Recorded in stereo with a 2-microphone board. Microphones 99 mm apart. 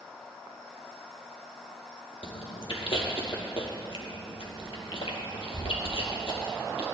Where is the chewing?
65° left (ahead or behind), 2.5 m.